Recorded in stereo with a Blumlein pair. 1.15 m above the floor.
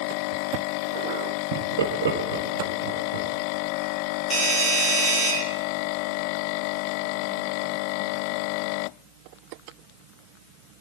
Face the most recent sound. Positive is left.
turn(degrees=15)